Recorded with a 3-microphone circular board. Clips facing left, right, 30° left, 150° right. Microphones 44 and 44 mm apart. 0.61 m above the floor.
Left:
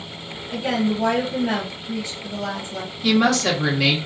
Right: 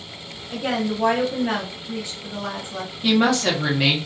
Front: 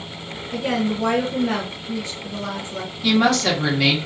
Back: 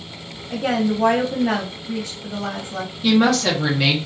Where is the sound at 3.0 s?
70° right, 1.2 m.